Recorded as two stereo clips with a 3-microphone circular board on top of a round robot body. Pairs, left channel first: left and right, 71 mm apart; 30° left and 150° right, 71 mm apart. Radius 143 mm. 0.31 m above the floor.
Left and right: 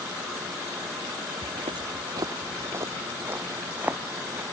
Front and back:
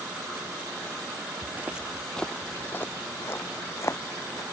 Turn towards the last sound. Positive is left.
turn(degrees=-20)